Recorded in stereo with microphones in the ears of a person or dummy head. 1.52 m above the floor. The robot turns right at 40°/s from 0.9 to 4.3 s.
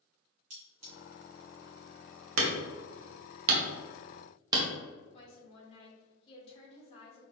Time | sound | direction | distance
0.5 | cutlery clinking | 40° right (ahead or behind) | 1.6 m
2.4 | hammering | 80° right | 0.9 m
5.1 | a woman speaking | 35° left (ahead or behind) | 2.0 m